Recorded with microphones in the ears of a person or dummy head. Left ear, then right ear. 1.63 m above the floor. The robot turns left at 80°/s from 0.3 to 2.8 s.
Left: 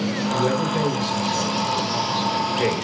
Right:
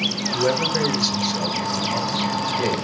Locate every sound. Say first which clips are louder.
0.3 s a man speaking: right 1 dB; 10° right, 3 m; by 2.9 s 150° left, 3 m